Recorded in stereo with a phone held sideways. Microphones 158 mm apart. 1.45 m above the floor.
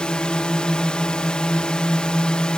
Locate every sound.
0.0 s a drone: 5° left (ahead or behind)